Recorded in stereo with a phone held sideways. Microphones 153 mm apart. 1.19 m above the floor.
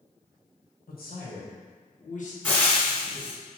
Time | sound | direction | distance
0.9 | a man speaking | 75° left (ahead or behind) | 1.6 m
2.4 | frying | 10° left (ahead or behind) | 2.0 m